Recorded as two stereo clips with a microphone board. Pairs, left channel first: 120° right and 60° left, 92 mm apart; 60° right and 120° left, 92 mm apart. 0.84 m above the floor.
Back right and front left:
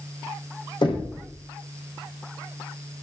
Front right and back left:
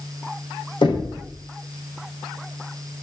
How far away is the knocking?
About 3 m.